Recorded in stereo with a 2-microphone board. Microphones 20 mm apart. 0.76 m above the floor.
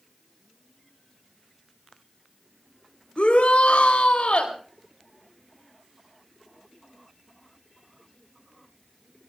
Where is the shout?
70° left (ahead or behind), 3.5 m.